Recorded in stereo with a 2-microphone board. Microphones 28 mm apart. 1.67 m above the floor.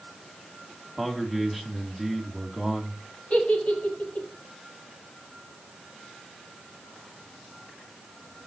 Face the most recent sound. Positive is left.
turn(degrees=55)  # may be behind; listen again after turning